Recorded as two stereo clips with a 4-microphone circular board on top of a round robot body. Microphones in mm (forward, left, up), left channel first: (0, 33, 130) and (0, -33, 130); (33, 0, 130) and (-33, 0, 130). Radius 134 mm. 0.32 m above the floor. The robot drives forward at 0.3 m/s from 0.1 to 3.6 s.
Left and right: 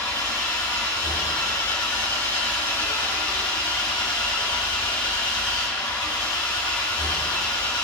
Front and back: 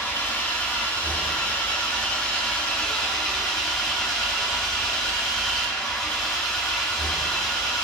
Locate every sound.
0.0 s an engine running: 65° left, 3 m; by 7.8 s 85° left, 2.5 m